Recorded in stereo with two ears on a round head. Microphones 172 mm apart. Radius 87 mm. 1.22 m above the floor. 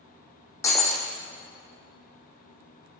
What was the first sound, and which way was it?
Breaking glass, 15° left (ahead or behind).